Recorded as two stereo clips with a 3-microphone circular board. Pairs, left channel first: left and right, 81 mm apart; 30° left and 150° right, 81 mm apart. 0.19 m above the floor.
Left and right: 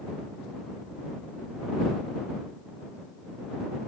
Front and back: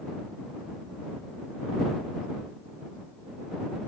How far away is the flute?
I don't hear a flute.